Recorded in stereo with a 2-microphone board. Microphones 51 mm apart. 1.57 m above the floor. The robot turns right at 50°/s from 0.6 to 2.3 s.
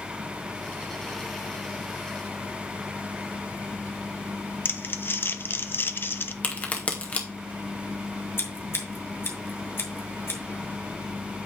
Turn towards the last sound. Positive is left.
turn(degrees=50)  # may be behind; listen again after turning